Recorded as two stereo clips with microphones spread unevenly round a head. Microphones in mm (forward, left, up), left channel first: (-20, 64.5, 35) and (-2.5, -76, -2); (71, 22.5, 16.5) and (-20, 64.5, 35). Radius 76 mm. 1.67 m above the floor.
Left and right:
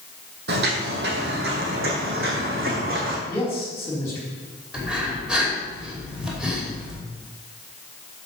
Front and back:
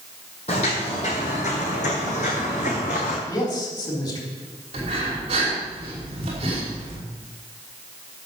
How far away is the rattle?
No rattle in this recording.